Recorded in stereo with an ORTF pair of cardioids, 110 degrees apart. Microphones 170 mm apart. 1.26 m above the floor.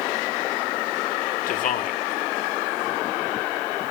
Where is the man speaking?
50° left, 1.8 m.